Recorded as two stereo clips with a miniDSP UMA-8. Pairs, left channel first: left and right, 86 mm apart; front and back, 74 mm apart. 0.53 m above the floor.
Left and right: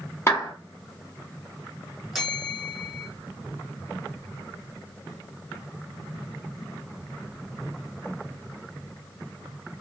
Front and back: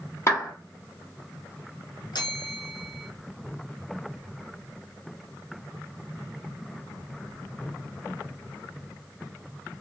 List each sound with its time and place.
0.3 s a clap: 40° left, 1.3 m
2.1 s a bell: straight ahead, 1.1 m